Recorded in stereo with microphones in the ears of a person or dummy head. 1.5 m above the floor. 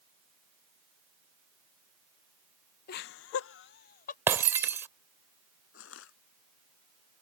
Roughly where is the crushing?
Left.